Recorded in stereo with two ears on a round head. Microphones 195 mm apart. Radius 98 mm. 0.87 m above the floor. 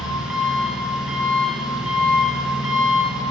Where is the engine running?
5° right (ahead or behind), 5.5 m.